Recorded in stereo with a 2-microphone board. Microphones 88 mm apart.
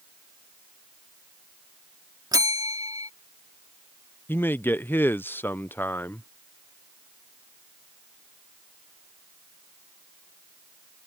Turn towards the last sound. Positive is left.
turn(degrees=25)  # may be behind; listen again after turning